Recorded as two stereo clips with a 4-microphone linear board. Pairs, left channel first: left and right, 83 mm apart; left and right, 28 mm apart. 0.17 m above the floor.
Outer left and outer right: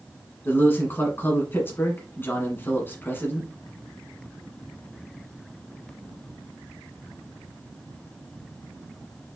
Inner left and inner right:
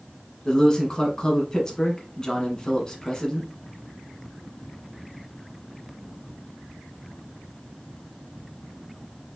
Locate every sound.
0.5 s a man speaking: 30° left (ahead or behind), 1.7 m